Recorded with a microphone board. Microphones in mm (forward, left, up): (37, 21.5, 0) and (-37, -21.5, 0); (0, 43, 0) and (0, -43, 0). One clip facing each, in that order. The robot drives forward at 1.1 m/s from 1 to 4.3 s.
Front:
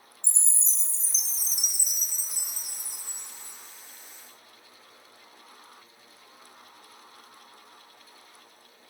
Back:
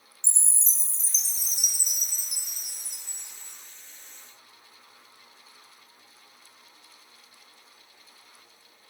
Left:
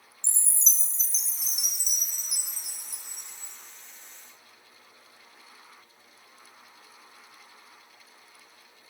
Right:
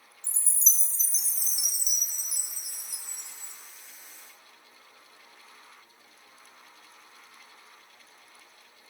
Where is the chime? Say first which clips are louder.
Back 1 dB, left 1 dB; 170° right, 1.2 m; by 3.5 s straight behind, 3.5 m.